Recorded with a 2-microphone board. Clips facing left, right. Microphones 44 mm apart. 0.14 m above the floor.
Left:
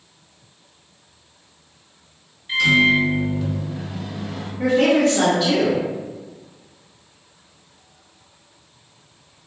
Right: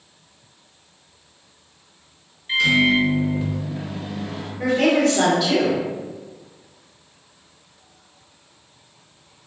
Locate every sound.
2.5 s a microwave: 5° right (ahead or behind), 1.7 m
4.6 s a woman speaking: 15° left (ahead or behind), 1.6 m